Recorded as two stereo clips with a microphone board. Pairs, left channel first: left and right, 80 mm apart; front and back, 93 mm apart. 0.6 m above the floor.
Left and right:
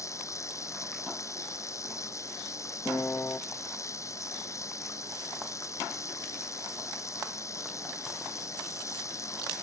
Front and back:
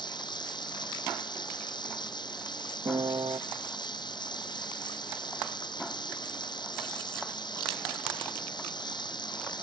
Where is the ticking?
I don't hear ticking.